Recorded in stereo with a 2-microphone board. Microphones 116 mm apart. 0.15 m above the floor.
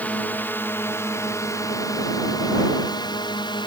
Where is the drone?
15° left (ahead or behind); by 3.7 s 40° left (ahead or behind).